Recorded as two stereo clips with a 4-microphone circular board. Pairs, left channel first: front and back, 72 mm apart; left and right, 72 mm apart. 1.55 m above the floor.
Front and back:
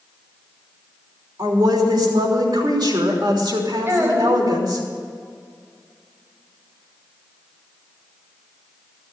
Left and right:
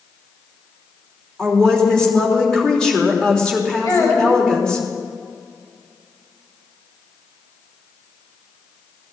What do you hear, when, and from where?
1.4 s a woman speaking: 170° left, 3.5 m
3.9 s a child speaking: 125° left, 7 m